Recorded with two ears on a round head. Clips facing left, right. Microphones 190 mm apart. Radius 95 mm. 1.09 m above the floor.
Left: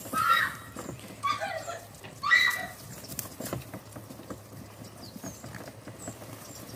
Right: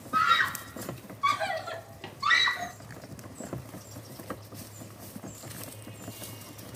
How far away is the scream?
About 3 m.